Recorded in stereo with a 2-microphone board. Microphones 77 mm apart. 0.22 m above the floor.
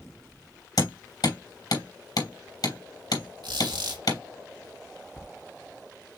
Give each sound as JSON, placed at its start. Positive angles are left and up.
{"t": 0.8, "sound": "hammering", "side_deg": 65, "distance_m": 3.0}
{"t": 3.4, "sound": "a squeak", "side_deg": -75, "distance_m": 2.5}